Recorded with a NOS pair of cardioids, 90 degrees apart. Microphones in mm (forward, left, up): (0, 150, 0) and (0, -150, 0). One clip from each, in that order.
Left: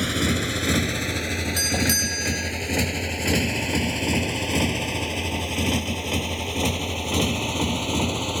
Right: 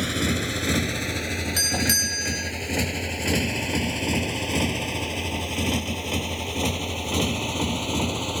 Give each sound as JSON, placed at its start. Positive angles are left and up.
{"t": 0.0, "sound": "a motorcycle", "azimuth_deg": 35}
{"t": 1.6, "sound": "a doorbell", "azimuth_deg": 15}